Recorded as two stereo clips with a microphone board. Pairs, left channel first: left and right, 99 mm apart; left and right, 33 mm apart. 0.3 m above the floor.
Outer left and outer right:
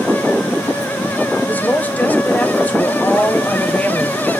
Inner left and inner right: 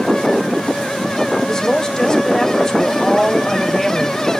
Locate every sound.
1.5 s a woman speaking: 15° left (ahead or behind), 1.0 m